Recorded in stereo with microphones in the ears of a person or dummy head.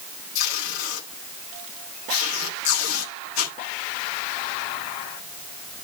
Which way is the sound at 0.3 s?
85° left.